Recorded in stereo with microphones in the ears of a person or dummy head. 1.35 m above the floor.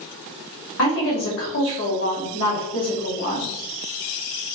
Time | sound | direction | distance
0.8 | a woman speaking | 80° left | 2 m